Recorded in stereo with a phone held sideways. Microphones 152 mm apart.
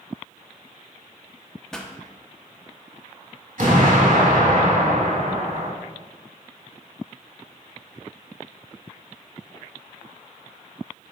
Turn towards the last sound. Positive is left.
turn(degrees=-75)  # may be behind; listen again after turning